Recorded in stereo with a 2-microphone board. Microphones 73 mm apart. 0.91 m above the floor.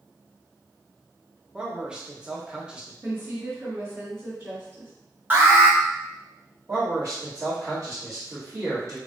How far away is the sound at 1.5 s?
About 0.6 m.